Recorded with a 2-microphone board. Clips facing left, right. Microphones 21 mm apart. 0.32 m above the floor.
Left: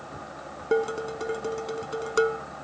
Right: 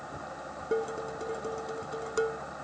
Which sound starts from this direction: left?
Dishes clattering, at 0.7 s.